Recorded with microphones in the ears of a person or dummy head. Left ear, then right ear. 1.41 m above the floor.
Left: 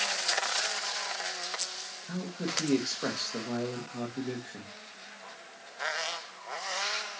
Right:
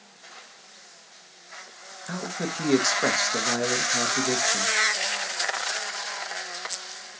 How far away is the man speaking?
About 1.5 m.